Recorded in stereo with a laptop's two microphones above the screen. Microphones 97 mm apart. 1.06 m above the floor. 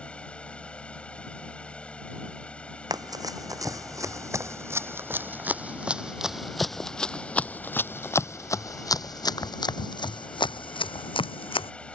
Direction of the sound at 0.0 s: 10° left (ahead or behind).